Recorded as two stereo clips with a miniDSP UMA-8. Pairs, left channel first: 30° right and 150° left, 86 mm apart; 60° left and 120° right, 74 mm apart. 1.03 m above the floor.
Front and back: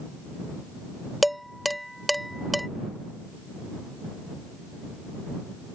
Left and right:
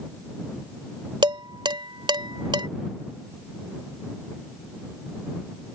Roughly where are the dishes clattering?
Behind right.